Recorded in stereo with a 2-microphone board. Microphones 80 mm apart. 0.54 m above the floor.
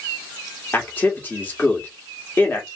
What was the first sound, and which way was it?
A man speaking, 25° left (ahead or behind).